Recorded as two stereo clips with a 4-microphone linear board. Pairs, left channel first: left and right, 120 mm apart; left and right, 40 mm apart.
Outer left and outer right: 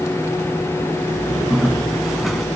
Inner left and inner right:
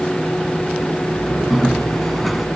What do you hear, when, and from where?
1.5 s a bird: centre (ahead or behind)